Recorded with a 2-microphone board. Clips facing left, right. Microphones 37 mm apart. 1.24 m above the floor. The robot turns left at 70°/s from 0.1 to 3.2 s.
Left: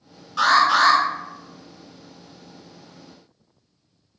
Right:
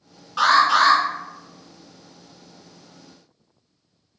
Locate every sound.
0.4 s an alarm: 150° right, 2.0 m; by 1.0 s 165° left, 2.0 m